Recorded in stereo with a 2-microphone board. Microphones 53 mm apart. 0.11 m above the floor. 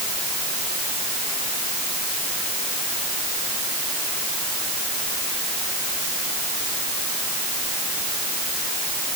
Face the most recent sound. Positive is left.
No sound to turn to.